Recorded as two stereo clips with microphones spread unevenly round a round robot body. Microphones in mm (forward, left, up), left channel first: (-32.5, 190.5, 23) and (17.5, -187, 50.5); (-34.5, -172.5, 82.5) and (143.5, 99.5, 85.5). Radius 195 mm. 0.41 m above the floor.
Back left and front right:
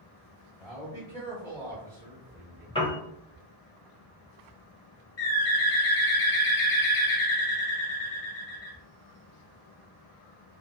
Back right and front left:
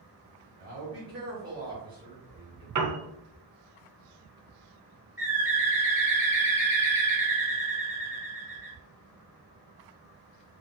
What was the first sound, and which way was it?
A man speaking, 40° left.